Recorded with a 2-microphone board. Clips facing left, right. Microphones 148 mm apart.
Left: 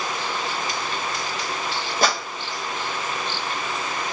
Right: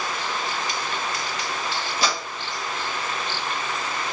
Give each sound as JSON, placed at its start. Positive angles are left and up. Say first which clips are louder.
{"t": 2.0, "sound": "a clap", "louder": "left 5 dB", "side_deg": 50, "distance_m": 1.3}